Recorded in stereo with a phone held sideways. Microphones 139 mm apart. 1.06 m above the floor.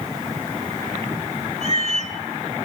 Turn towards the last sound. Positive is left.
turn(degrees=-55)  # may be behind; listen again after turning